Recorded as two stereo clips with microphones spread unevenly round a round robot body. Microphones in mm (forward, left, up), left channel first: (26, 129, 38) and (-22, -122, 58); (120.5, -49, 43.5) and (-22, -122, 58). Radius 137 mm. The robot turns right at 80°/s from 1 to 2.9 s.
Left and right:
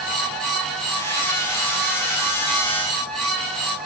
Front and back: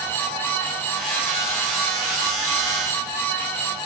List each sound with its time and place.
Only background noise.